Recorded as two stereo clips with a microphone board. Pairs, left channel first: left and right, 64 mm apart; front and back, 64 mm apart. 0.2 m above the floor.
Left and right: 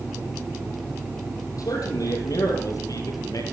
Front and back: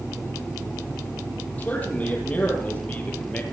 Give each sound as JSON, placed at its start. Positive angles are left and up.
{"t": 1.6, "sound": "a man speaking", "azimuth_deg": 70, "distance_m": 7.0}